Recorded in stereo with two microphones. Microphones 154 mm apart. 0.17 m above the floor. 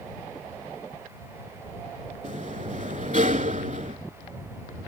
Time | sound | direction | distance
2.2 | a sliding door | 55° right (ahead or behind) | ?